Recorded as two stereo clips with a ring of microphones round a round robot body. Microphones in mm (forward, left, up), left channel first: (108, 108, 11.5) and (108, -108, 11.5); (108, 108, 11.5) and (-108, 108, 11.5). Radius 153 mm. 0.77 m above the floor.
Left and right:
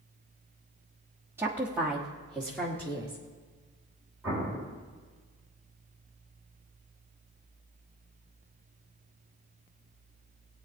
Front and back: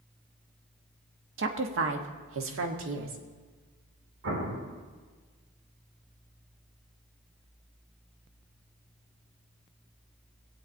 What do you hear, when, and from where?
1.4 s a woman speaking: 170° right, 1.2 m; by 3.2 s 170° left, 1.9 m
4.2 s an explosion: 170° right, 2.5 m